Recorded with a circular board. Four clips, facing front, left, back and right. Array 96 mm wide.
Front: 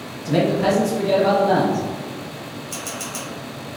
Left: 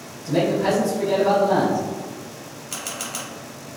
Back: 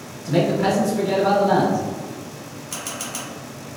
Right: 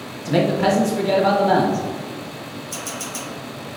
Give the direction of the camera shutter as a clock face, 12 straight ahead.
9 o'clock.